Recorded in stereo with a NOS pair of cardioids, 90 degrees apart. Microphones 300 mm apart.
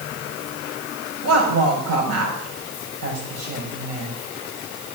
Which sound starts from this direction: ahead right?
A woman speaking, at 1.2 s.